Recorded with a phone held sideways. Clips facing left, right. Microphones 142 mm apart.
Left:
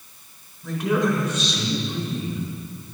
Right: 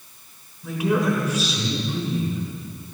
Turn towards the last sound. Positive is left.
turn(degrees=-5)  # may be behind; listen again after turning